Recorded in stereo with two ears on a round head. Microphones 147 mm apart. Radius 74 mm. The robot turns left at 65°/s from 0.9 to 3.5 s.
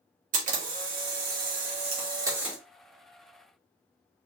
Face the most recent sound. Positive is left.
turn(degrees=125)